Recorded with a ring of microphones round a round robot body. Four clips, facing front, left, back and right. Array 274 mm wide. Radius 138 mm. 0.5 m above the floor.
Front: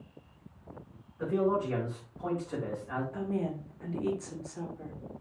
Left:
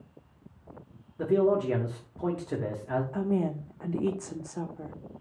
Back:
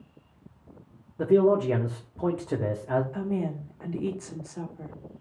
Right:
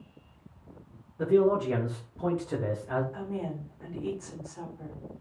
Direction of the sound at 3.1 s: 105° left.